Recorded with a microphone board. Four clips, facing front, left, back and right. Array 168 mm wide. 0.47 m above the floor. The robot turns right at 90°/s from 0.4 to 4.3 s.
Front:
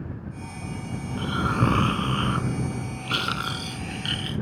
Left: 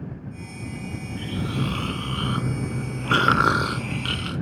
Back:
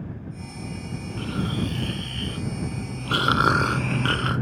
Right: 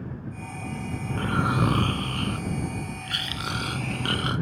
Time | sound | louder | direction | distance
1.1 | snoring | right 5 dB, front 3 dB | 80° right | ?